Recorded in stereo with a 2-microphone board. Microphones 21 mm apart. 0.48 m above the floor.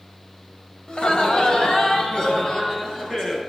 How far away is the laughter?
About 1.7 m.